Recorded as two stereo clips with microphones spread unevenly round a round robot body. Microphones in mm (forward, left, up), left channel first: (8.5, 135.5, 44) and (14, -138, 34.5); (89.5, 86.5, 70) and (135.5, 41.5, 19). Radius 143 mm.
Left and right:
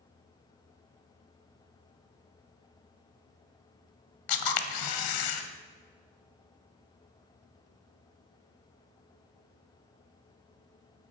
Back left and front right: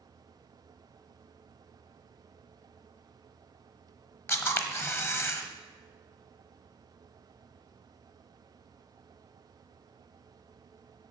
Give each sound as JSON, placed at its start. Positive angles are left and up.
{"t": 4.3, "sound": "a camera shutter", "azimuth_deg": 100, "distance_m": 1.3}